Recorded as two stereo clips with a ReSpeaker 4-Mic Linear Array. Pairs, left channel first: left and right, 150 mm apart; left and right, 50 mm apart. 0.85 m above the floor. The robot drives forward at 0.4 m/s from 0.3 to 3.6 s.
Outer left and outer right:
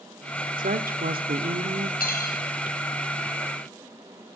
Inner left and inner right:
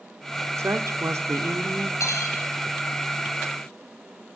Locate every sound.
0.6 s a woman speaking: 65° right (ahead or behind), 1.7 m; by 1.9 s 80° right, 1.6 m
2.0 s cutlery clinking: 80° left, 3.5 m